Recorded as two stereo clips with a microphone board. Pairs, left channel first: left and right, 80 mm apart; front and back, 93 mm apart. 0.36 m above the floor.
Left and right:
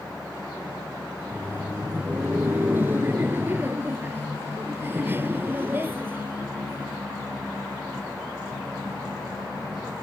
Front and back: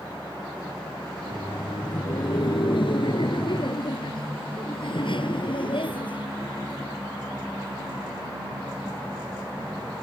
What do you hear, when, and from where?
1.2 s laughter: 25° right